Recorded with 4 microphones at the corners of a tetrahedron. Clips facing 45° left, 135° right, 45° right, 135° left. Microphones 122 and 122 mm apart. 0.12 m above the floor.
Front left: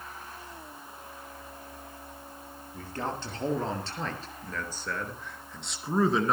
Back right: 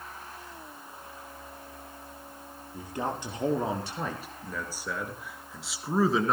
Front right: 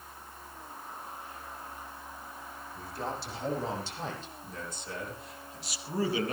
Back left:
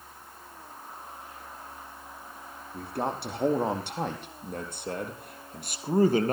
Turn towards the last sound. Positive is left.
turn(degrees=135)